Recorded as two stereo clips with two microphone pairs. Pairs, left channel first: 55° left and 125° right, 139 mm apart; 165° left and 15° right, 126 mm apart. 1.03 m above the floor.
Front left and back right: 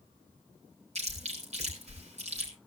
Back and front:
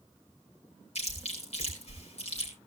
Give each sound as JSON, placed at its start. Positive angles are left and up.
{"t": 0.9, "sound": "chewing", "azimuth_deg": -160, "distance_m": 5.0}